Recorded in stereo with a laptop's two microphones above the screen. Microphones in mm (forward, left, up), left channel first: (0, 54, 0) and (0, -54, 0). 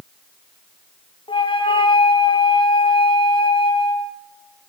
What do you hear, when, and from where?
1.3 s a flute: 50° left (ahead or behind), 0.5 m